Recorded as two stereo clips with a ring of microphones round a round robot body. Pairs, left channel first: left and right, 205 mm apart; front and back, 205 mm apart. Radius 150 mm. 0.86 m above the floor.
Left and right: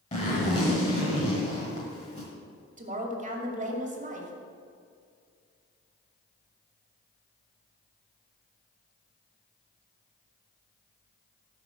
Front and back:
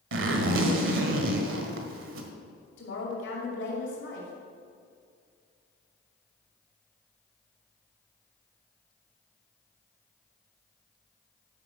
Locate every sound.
0.1 s a zipper: 160° left, 1.5 m
2.8 s a woman speaking: 40° right, 2.5 m